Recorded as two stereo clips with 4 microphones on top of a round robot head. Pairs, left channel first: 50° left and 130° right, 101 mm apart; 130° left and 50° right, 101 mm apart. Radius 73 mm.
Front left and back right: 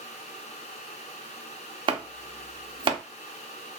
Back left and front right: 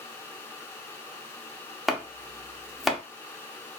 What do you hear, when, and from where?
1.9 s chopping: 140° right, 0.7 m